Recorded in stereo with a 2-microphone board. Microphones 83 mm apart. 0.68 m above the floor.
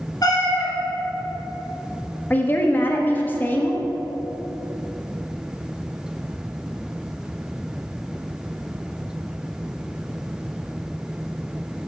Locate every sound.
0.2 s a cat meowing: 50° left (ahead or behind), 1.1 m
2.3 s a woman speaking: 20° left (ahead or behind), 0.6 m